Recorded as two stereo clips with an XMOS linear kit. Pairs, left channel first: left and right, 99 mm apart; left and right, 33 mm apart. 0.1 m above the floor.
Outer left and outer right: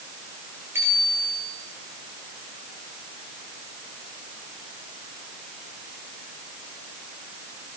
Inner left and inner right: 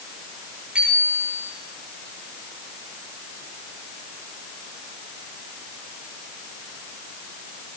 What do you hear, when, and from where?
0.8 s a bicycle bell: 25° right (ahead or behind), 7 m